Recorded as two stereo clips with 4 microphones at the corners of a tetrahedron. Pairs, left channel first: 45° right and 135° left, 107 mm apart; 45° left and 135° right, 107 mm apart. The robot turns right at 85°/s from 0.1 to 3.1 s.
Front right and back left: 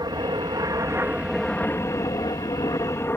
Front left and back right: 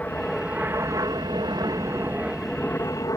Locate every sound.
0.0 s an aircraft: 115° left; by 3.2 s 10° left